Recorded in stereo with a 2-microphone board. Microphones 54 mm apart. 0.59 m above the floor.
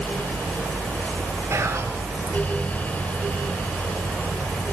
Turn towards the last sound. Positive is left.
turn(degrees=-55)  # may be behind; listen again after turning